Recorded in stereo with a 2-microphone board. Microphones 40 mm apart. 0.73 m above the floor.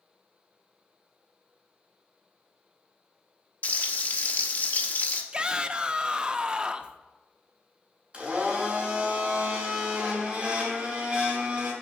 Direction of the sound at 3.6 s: 45° left (ahead or behind).